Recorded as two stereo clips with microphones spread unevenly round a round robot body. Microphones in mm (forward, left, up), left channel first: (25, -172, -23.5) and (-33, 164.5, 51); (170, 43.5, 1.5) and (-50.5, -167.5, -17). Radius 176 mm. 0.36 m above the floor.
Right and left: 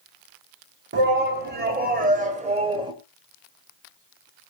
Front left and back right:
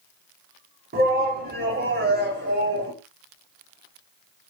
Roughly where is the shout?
Behind.